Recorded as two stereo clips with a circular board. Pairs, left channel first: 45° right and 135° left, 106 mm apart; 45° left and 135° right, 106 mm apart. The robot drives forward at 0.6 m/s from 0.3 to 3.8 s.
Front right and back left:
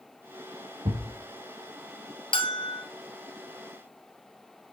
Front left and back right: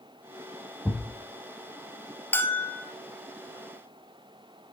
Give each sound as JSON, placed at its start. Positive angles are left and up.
{"t": 0.8, "sound": "a thud", "azimuth_deg": 120, "distance_m": 4.0}
{"t": 2.3, "sound": "a bell", "azimuth_deg": -25, "distance_m": 2.0}